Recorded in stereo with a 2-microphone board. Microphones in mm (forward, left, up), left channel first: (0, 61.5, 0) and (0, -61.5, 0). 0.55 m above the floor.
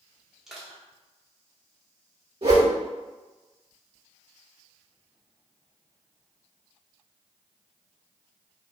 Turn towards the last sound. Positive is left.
turn(degrees=-50)  # may be behind; listen again after turning